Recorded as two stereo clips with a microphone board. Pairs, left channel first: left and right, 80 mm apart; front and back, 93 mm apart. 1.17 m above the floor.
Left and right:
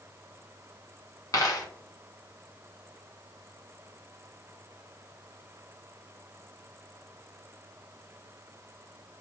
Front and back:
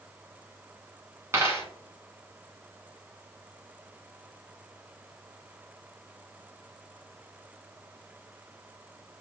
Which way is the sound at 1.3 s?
125° left.